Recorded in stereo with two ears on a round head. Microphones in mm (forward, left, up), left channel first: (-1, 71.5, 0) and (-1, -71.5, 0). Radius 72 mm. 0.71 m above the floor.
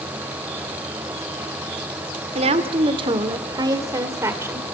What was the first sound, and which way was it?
A woman speaking, 40° right (ahead or behind).